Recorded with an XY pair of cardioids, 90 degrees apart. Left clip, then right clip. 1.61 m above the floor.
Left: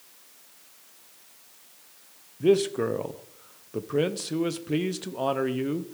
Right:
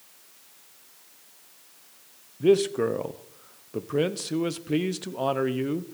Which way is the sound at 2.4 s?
5° right.